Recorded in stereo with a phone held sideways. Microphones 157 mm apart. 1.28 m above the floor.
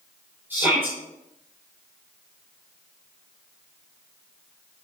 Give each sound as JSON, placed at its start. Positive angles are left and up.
{"t": 0.5, "sound": "a shout", "side_deg": -15, "distance_m": 5.0}